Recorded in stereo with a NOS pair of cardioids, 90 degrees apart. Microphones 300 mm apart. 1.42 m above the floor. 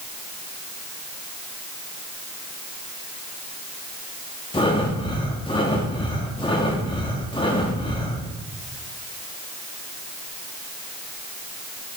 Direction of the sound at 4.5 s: 15° left.